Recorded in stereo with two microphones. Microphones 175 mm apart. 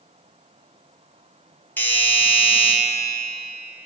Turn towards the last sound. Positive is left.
turn(degrees=10)  # may be behind; listen again after turning